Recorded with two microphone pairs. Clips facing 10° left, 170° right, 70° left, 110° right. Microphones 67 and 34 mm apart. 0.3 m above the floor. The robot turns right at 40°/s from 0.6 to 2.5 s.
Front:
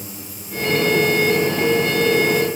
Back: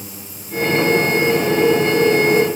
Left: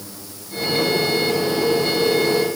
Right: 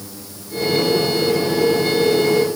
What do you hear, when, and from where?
Only background noise.